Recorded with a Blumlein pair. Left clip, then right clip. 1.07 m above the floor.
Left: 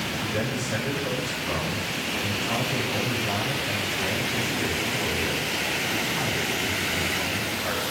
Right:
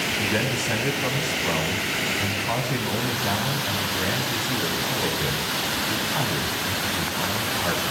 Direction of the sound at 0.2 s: 35° right.